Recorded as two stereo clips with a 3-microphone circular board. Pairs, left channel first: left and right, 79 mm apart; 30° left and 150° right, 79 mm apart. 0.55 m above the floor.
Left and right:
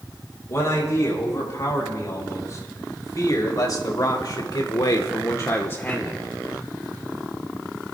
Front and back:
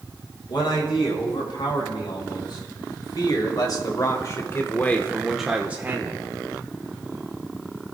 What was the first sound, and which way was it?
A man speaking, 40° left.